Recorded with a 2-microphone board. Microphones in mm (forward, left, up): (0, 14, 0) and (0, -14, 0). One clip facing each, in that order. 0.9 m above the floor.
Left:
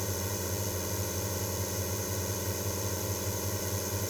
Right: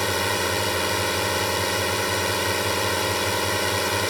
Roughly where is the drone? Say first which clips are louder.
Right 13 dB; right.